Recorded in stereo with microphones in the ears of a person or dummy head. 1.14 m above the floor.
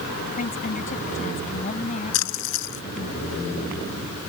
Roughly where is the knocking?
I don't hear knocking.